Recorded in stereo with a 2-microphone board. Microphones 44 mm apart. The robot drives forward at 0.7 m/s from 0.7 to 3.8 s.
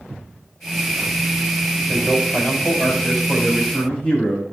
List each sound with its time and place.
1.9 s a man speaking: 15° left (ahead or behind), 5 m; by 4.4 s 10° left (ahead or behind), 6 m